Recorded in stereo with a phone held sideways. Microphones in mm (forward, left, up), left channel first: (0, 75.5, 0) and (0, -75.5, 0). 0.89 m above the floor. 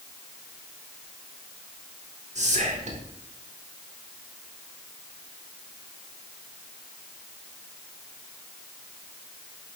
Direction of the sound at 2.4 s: 50° right (ahead or behind).